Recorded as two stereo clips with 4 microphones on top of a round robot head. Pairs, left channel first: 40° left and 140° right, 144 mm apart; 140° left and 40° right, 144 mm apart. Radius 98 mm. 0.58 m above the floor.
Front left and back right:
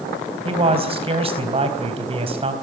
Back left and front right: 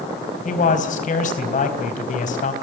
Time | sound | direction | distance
0.5 | a man speaking | 170° left | 3.5 m